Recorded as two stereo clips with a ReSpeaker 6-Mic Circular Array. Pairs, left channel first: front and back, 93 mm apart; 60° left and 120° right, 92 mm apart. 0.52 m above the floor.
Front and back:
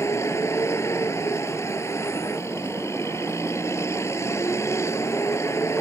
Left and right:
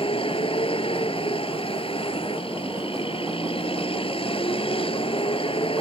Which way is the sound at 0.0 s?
60° left.